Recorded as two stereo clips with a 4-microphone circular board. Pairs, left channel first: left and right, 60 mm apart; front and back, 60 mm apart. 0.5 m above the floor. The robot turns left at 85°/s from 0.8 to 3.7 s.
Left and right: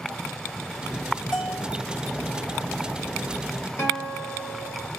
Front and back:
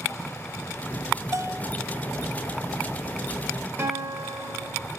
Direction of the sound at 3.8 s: 130° left.